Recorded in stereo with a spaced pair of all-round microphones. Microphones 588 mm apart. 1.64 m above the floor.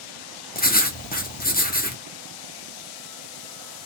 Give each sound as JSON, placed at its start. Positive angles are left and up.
{"t": 0.6, "sound": "writing", "side_deg": 15, "distance_m": 0.7}